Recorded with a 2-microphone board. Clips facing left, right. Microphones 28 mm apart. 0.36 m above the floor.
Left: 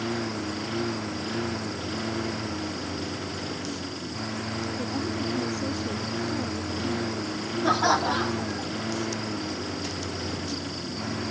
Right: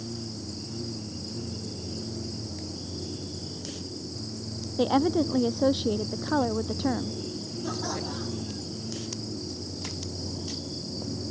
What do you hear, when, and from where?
0.0 s a lawn mower: 90° left
4.8 s a woman speaking: 65° right (ahead or behind)
7.6 s laughter: 60° left (ahead or behind)